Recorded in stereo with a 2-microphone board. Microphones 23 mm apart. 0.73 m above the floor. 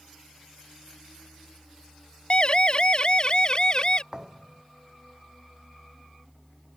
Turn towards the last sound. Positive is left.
turn(degrees=-25)  # may be behind; listen again after turning